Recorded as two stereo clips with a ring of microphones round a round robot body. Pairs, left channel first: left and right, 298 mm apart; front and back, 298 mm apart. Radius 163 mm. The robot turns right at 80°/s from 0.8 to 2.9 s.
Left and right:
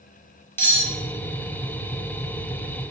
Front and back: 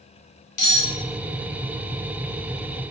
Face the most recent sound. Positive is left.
turn(degrees=175)